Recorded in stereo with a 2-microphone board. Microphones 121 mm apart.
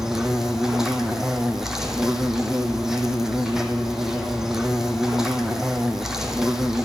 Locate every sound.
0.0 s an insect: 5° right (ahead or behind), 0.7 m